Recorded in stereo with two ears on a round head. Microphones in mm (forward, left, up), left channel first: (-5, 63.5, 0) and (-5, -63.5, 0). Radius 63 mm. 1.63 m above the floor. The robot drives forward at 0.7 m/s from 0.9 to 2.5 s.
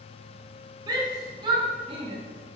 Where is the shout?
30° right (ahead or behind), 3 m; by 2.2 s 40° right (ahead or behind), 2.5 m.